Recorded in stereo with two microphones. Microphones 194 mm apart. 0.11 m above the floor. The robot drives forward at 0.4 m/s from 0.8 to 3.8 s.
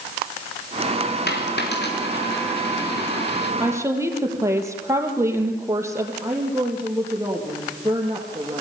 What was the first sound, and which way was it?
A dropped coin, 65° left (ahead or behind).